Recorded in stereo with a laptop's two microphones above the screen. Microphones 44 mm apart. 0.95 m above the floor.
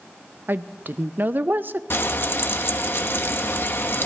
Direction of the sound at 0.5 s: 50° right (ahead or behind).